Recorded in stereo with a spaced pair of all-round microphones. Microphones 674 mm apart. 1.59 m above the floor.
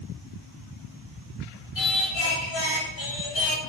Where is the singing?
40° left (ahead or behind), 0.9 m.